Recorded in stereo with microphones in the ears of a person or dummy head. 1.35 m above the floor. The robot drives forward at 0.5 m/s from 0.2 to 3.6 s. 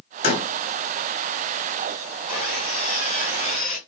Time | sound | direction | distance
0.2 | a door slam | 35° left (ahead or behind) | 1.9 m
2.3 | sawing | centre (ahead or behind) | 3 m